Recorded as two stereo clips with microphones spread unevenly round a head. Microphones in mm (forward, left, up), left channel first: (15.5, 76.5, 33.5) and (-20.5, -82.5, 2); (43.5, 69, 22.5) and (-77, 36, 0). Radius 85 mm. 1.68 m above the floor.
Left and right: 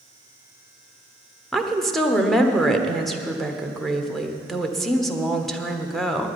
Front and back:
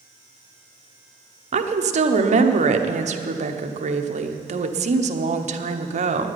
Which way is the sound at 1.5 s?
165° left.